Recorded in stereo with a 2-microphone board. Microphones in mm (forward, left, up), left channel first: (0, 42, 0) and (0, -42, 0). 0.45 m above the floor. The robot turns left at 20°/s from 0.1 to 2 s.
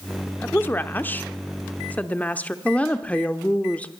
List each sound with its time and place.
0.4 s a woman speaking: 25° left (ahead or behind), 0.8 m; by 2.5 s 20° left (ahead or behind), 0.8 m
2.6 s a woman speaking: 15° left (ahead or behind), 0.8 m